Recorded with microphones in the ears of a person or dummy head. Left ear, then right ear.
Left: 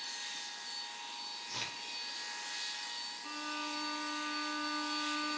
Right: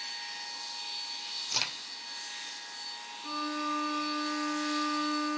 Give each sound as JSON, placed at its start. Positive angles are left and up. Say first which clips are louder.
{"t": 1.5, "sound": "a crack", "louder": "right 9 dB", "side_deg": -30, "distance_m": 2.0}
{"t": 3.2, "sound": "a violin", "louder": "right 9 dB", "side_deg": -15, "distance_m": 3.5}